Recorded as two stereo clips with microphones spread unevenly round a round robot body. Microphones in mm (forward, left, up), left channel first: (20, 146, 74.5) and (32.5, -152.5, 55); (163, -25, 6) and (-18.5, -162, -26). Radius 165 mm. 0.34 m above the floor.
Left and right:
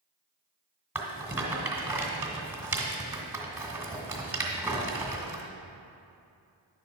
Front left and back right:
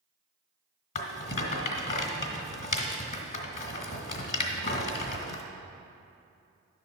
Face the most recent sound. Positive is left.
turn(degrees=-10)